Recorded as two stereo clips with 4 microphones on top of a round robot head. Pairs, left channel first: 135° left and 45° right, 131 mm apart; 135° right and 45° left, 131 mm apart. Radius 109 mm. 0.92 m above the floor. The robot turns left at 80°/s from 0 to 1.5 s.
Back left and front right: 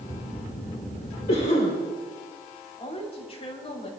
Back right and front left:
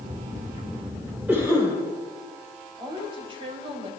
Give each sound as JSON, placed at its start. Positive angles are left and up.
{"t": 1.3, "sound": "a cough", "azimuth_deg": 125, "distance_m": 4.0}
{"t": 2.8, "sound": "a woman speaking", "azimuth_deg": 95, "distance_m": 4.0}